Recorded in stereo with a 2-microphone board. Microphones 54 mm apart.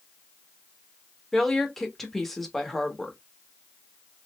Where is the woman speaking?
5° left (ahead or behind), 1.0 m.